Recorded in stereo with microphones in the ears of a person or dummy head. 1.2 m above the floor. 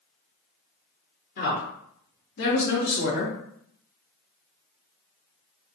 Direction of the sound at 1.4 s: 50° left (ahead or behind).